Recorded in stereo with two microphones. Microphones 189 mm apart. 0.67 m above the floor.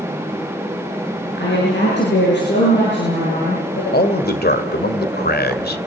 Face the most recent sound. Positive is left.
turn(degrees=65)  # may be behind; listen again after turning